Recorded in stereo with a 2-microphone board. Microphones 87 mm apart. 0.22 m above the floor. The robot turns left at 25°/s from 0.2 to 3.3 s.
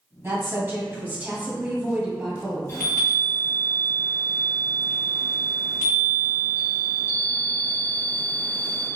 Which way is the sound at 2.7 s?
30° left (ahead or behind).